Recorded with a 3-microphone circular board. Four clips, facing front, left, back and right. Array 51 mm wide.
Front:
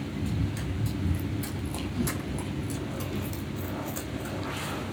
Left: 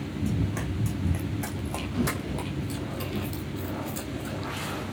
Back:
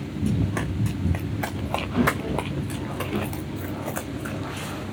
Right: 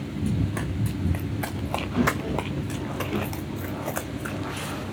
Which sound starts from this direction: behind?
Running footsteps, at 0.2 s.